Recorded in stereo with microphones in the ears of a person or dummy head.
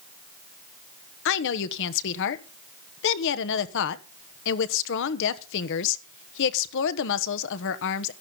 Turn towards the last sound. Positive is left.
turn(degrees=65)  # may be behind; listen again after turning